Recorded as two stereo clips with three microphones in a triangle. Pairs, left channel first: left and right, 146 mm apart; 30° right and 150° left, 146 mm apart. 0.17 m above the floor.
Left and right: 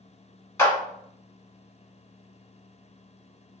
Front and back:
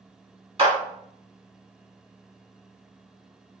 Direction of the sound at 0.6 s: 150° left.